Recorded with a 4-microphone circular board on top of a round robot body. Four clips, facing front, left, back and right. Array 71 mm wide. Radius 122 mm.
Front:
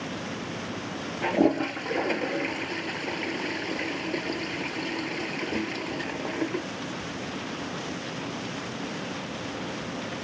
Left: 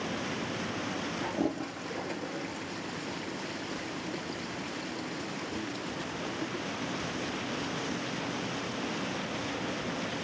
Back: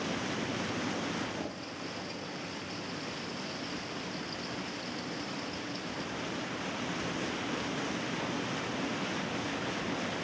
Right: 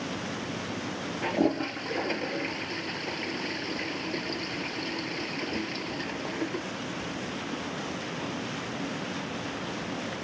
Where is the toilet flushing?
20° right.